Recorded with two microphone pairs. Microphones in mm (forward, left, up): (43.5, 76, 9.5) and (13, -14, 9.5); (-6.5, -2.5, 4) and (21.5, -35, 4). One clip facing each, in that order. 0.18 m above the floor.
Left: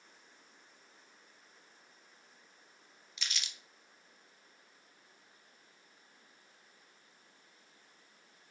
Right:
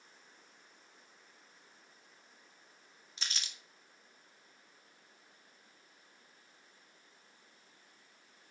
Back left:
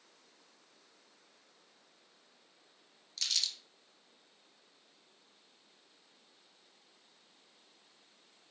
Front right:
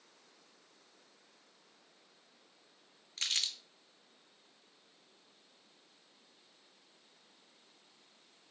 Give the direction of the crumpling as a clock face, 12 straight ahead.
2 o'clock.